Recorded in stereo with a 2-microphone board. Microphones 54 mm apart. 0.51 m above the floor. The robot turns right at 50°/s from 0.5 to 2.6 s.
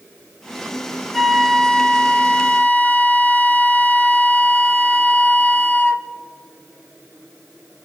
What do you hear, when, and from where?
1.1 s a flute: straight ahead, 0.9 m; by 6.1 s 75° left, 0.9 m